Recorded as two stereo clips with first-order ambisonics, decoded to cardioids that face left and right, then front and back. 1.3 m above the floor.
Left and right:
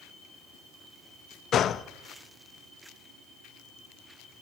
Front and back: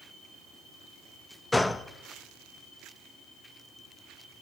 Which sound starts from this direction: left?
A gunshot, at 1.5 s.